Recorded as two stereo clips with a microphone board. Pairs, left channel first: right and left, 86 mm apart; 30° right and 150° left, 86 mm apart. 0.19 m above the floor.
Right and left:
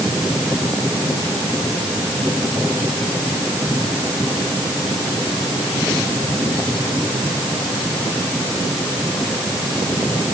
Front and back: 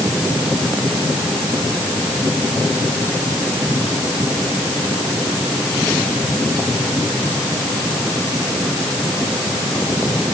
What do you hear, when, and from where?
Only background noise.